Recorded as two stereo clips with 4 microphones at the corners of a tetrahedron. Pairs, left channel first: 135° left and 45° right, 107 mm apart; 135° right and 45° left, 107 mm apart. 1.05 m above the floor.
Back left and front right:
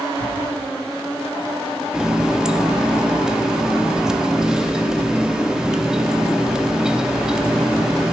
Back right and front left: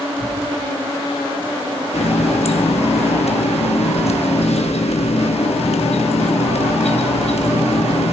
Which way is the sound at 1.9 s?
130° right.